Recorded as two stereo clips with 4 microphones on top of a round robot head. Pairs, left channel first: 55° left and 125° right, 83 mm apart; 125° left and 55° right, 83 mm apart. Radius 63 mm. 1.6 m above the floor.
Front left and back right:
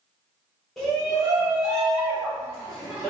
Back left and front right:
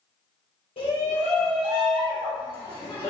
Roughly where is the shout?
Behind left.